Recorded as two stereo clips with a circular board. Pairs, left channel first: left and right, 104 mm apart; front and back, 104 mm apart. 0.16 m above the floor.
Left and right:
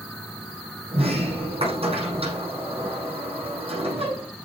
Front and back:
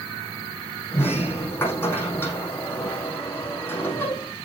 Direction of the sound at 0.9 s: 70° right.